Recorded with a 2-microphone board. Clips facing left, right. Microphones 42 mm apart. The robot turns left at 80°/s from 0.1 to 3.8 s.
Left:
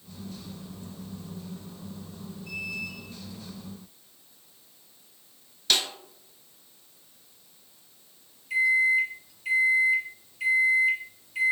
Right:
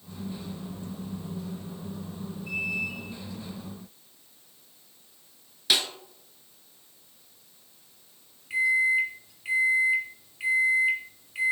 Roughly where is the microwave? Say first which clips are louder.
Left 1 dB; right.